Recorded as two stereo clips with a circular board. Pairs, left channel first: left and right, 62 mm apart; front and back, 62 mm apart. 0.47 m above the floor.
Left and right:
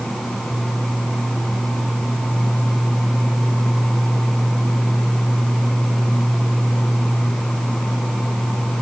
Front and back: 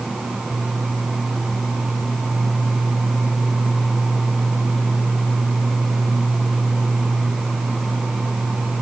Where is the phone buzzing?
I don't hear a phone buzzing.